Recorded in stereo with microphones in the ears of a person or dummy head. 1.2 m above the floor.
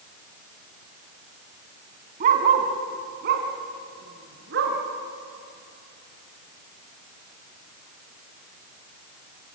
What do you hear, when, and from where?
2.2 s a dog barking: 45° right (ahead or behind), 3 m; by 4.8 s 60° right (ahead or behind), 4.5 m